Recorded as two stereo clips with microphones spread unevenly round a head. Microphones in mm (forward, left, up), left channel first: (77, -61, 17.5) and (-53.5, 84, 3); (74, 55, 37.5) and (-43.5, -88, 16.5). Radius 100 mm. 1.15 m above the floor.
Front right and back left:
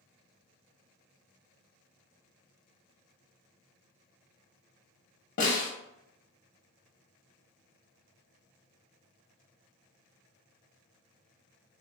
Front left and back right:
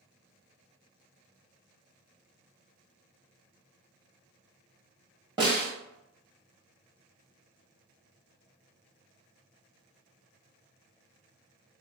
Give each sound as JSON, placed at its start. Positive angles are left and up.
{"t": 5.4, "sound": "a snare drum", "azimuth_deg": -65, "distance_m": 0.9}